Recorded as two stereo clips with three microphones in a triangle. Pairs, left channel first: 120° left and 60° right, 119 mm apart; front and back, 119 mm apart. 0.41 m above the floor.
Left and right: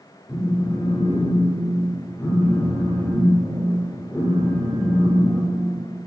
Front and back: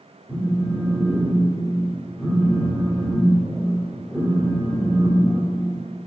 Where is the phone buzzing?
60° left, 0.8 m.